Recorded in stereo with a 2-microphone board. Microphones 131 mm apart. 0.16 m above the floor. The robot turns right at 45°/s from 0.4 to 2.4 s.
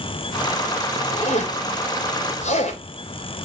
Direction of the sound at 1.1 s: 55° left (ahead or behind).